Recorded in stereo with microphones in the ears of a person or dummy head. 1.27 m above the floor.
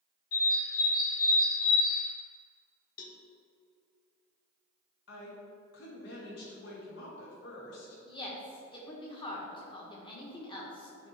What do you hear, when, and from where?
0.3 s a bird: 55° left (ahead or behind), 0.9 m
3.0 s a cowbell: 40° left (ahead or behind), 0.6 m
5.1 s a woman speaking: 65° left (ahead or behind), 1.6 m
8.1 s a woman speaking: 25° left (ahead or behind), 1.2 m